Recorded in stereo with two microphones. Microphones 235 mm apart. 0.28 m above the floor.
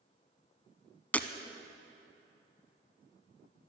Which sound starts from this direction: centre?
Breaking glass, at 1.1 s.